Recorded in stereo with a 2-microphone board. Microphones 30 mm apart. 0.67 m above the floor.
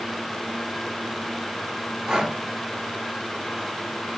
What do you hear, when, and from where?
2.1 s breathing: 25° right (ahead or behind), 0.7 m